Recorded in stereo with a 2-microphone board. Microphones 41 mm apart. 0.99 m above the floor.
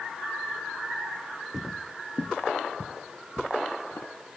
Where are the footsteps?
5° right (ahead or behind); by 4.1 s 75° left (ahead or behind).